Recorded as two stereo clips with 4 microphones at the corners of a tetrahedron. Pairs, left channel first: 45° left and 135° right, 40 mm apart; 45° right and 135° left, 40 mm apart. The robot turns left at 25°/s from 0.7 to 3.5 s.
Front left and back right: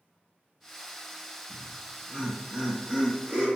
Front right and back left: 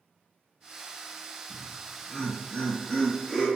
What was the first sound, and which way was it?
Laughter, 60° right.